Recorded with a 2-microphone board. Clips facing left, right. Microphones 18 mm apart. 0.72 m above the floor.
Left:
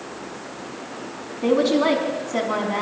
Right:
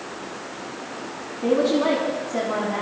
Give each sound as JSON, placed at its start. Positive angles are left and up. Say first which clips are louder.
{"t": 1.4, "sound": "a woman speaking", "louder": "left 1 dB", "side_deg": 40, "distance_m": 5.0}